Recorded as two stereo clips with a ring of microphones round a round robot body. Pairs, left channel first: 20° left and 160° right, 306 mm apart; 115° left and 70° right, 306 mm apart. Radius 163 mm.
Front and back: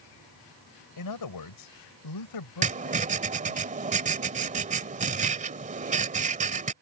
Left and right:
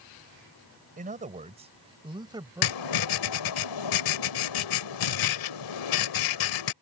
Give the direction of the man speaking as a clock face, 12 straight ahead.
12 o'clock.